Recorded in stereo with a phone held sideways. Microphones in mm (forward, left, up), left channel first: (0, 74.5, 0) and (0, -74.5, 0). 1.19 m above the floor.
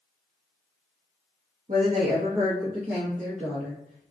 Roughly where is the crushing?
No crushing in this recording.